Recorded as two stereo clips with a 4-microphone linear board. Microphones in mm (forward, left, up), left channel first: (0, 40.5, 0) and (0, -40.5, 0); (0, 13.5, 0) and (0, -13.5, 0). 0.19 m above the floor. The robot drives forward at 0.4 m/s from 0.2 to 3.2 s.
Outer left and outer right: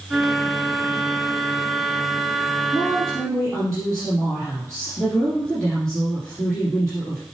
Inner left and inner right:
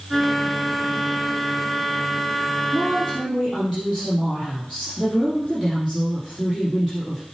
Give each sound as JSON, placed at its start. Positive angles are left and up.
{"t": 2.7, "sound": "a woman speaking", "side_deg": 10, "distance_m": 3.5}